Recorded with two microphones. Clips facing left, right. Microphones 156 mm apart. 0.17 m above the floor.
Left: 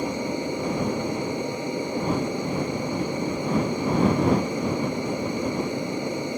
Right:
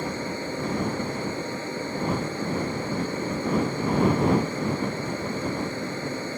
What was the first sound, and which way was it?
An aircraft, 15° left (ahead or behind).